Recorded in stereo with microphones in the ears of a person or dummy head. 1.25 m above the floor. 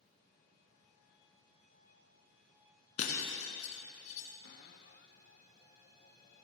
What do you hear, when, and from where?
3.0 s breaking glass: 45° left (ahead or behind), 2.5 m
4.4 s a cupboard door: 50° left (ahead or behind), 1.0 m